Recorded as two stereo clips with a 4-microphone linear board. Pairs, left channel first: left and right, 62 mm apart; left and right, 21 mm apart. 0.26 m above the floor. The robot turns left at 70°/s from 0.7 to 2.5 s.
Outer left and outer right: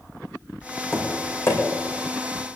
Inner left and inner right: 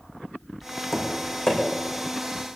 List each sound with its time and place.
0.9 s tapping: 10° left (ahead or behind), 5 m; by 1.6 s 60° left (ahead or behind), 5 m